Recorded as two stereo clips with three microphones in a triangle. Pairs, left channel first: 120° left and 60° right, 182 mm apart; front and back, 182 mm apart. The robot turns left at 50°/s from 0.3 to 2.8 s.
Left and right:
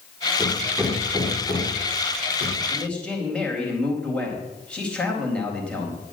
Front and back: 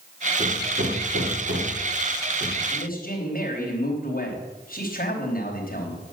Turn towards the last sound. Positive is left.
turn(degrees=35)